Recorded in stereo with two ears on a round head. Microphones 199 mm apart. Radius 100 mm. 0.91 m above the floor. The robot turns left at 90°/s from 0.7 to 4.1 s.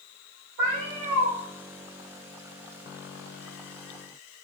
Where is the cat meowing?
55° right, 1.2 m; by 1.3 s 115° right, 1.2 m.